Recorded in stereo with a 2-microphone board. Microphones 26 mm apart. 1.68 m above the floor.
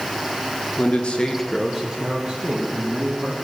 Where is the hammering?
No hammering in this recording.